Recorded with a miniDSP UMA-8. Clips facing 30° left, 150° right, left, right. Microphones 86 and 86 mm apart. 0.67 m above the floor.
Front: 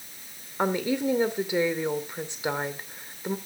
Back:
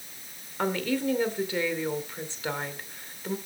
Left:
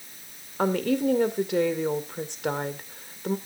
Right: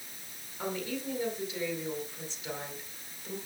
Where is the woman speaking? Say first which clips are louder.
Front 2 dB, left 12 dB; 100° left, 2 m.